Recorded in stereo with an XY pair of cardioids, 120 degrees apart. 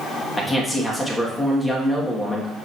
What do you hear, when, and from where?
0.4 s a man speaking: 15° left, 2 m